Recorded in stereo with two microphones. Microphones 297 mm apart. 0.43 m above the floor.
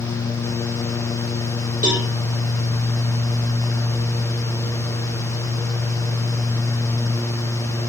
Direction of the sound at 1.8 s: 25° right (ahead or behind).